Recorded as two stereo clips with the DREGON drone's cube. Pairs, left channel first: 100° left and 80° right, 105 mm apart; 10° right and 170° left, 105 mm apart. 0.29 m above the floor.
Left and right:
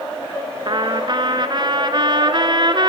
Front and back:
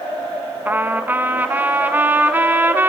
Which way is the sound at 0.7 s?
120° right.